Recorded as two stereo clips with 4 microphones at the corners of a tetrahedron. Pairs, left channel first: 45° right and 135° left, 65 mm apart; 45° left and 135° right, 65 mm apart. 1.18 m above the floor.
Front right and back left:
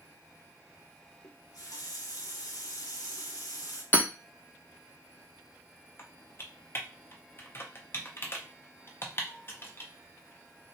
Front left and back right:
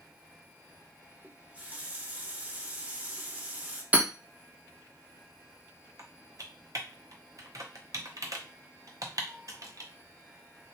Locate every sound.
1.2 s a running tap: 70° right, 0.7 m
3.9 s hammering: 90° right, 0.7 m
6.0 s typing on a keyboard: 100° right, 0.6 m